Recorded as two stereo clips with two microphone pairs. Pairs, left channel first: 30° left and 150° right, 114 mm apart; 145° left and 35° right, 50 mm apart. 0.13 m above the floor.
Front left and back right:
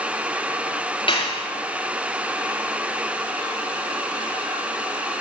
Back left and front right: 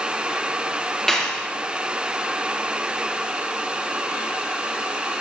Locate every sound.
1.1 s a clap: 65° left, 3.5 m